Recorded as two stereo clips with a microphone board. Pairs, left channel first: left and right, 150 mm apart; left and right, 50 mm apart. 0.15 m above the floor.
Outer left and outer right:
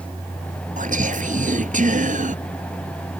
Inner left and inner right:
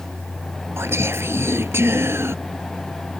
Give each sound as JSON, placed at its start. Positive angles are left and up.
{"t": 0.8, "sound": "whispering", "side_deg": -60}